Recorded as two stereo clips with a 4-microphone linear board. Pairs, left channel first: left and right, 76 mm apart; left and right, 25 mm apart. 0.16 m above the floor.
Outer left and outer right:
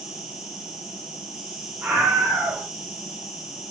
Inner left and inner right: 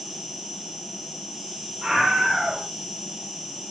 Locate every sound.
0.0 s an insect: 5° right (ahead or behind), 0.9 m
1.8 s a scream: 15° right (ahead or behind), 1.1 m